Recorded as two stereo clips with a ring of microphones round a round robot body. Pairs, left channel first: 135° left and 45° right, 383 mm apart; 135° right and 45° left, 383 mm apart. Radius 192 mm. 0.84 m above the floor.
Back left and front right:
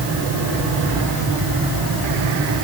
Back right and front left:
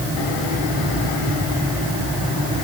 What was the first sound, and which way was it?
Only background noise.